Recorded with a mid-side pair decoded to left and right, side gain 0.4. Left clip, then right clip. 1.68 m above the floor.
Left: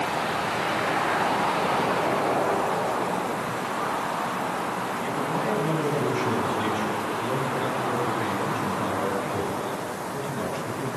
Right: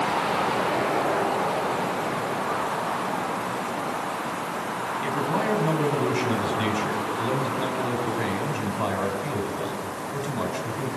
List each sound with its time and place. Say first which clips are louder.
5.0 s a man speaking: right 4 dB; 45° right, 6 m